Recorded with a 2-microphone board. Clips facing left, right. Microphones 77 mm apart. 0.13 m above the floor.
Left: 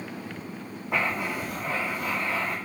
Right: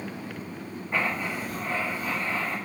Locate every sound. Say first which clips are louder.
0.9 s writing: left 1 dB; 80° left, 1.6 m